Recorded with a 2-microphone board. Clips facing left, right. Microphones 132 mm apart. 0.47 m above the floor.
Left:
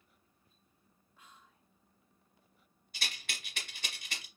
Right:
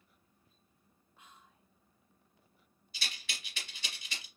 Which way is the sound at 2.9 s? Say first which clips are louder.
Left 1 dB; 55° left (ahead or behind).